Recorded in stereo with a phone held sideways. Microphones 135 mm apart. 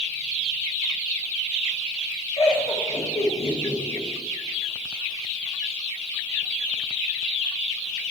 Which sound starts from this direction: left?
Laughter, at 2.4 s.